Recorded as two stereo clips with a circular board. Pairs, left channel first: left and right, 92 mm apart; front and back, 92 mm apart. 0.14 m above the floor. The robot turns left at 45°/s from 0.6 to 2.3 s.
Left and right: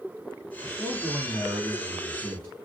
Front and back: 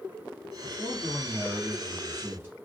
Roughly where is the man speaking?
Behind right.